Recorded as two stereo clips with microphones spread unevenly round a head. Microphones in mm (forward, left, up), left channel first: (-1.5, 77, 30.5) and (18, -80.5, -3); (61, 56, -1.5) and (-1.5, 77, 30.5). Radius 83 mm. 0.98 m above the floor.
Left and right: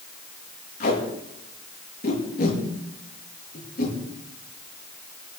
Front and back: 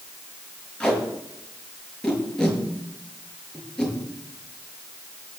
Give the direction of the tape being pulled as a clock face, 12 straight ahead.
10 o'clock.